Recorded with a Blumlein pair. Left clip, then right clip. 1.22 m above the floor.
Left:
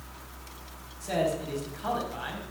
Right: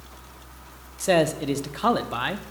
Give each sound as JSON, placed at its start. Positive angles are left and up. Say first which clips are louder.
{"t": 1.0, "sound": "a man speaking", "louder": "right 8 dB", "azimuth_deg": -50, "distance_m": 0.5}